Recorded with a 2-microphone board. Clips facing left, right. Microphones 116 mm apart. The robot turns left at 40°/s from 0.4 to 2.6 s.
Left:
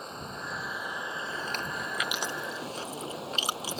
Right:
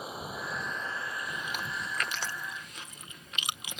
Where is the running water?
175° right; by 3.8 s 100° left.